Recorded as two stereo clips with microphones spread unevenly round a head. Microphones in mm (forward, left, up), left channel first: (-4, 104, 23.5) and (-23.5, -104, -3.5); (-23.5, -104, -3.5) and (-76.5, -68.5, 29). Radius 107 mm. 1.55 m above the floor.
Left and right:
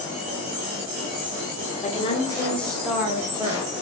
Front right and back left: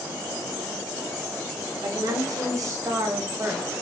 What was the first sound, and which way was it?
A woman speaking, 140° left.